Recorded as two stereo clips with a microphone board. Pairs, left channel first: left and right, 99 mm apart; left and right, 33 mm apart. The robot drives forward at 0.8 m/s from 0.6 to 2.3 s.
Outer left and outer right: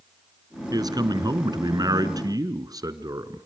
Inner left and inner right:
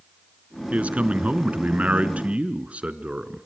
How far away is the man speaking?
About 1.7 m.